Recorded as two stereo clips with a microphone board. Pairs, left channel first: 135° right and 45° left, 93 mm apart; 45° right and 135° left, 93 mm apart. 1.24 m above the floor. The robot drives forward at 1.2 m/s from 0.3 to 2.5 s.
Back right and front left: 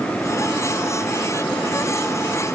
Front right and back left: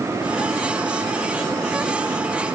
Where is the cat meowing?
I don't hear a cat meowing.